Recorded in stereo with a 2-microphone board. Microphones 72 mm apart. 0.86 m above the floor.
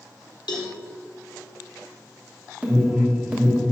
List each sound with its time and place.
0.5 s a cowbell: 75° left (ahead or behind), 1.5 m
2.6 s an alarm: 15° right (ahead or behind), 1.6 m